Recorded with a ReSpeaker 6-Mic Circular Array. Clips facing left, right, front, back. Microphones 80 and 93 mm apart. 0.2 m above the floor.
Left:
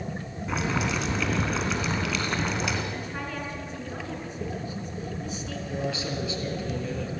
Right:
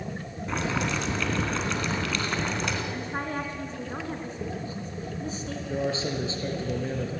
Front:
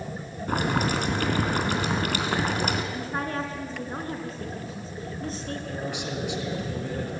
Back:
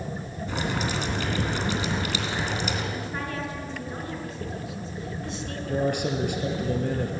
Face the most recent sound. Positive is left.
turn(degrees=-145)